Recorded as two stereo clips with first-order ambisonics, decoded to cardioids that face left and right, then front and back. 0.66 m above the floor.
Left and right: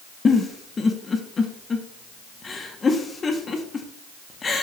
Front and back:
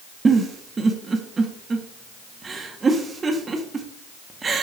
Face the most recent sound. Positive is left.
turn(degrees=130)